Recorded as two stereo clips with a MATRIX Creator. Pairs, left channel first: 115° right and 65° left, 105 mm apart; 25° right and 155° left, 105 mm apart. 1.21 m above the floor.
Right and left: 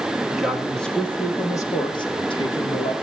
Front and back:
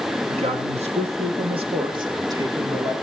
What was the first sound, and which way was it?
A man speaking, 150° left.